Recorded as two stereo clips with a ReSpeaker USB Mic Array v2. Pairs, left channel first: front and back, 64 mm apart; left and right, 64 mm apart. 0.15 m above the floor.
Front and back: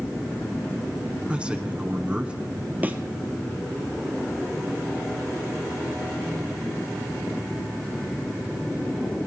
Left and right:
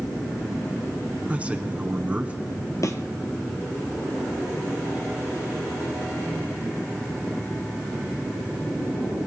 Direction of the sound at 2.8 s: 120° left.